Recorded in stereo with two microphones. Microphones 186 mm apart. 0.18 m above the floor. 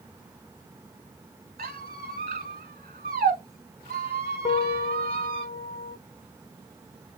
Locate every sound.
1.6 s a squeak: 60° right (ahead or behind), 0.9 m
4.5 s a piano: 35° left (ahead or behind), 0.8 m